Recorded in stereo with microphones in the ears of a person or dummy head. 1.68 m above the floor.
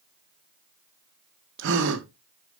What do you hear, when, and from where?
1.6 s a gasp: 70° right (ahead or behind), 1.8 m